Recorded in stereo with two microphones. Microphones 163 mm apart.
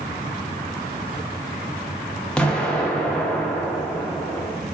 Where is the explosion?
5° left (ahead or behind), 0.7 m.